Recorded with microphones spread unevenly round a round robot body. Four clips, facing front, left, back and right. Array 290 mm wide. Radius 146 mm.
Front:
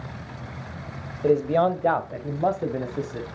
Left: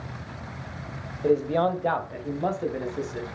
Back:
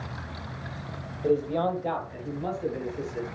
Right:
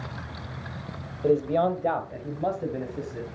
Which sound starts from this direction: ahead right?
A man speaking, at 1.2 s.